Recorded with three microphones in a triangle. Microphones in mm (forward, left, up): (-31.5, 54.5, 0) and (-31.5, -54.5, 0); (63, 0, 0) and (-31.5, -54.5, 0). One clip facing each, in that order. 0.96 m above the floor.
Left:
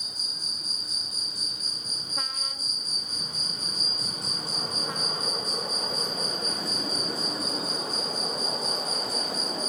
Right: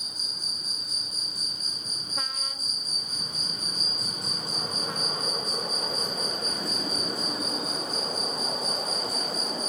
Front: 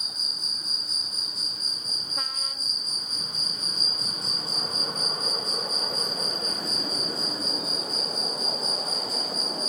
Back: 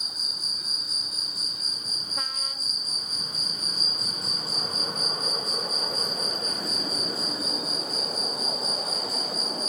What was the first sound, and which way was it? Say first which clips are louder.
An insect: even, even; 65° right.